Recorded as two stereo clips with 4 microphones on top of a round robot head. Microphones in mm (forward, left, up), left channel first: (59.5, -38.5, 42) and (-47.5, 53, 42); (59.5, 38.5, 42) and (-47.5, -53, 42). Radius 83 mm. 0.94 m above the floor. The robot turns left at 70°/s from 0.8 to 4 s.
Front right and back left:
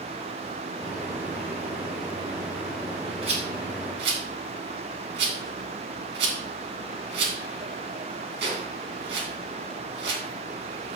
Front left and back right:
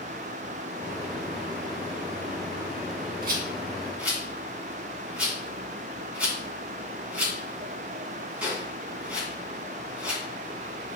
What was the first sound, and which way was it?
A rattle, 165° right.